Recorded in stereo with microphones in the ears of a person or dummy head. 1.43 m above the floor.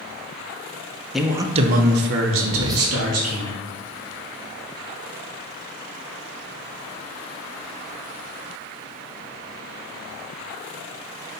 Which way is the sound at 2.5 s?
20° right (ahead or behind).